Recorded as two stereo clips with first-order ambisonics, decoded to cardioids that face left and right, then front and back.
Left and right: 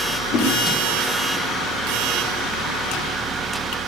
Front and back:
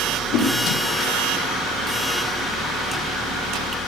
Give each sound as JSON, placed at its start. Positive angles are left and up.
{"t": 0.3, "sound": "a whoosh", "azimuth_deg": 35, "distance_m": 4.0}